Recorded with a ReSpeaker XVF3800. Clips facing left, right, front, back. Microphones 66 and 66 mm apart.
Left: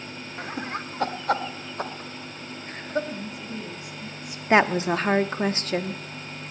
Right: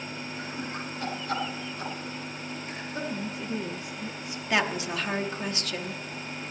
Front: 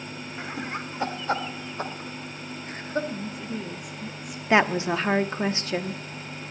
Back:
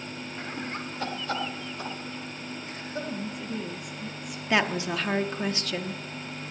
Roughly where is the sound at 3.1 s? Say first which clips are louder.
Right 2 dB, front 1 dB; right.